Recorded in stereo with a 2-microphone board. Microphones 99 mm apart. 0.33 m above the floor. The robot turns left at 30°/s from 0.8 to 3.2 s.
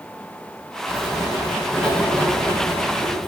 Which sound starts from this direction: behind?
Writing, at 0.9 s.